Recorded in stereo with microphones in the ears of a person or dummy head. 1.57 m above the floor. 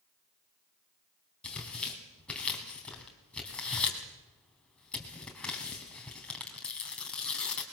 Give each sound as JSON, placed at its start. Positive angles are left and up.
{"t": 1.4, "sound": "tearing paper", "side_deg": 10, "distance_m": 3.5}